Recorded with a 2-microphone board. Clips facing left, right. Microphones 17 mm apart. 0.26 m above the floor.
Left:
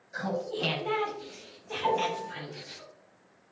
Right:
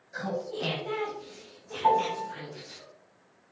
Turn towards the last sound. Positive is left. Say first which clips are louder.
# right 4 dB
turn(degrees=-20)  # may be behind; listen again after turning